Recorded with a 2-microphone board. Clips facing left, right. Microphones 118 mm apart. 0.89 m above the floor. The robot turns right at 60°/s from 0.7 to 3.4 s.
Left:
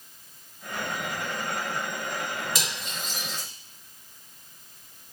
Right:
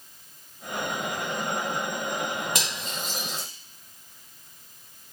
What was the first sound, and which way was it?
Cutlery clinking, 55° right (ahead or behind).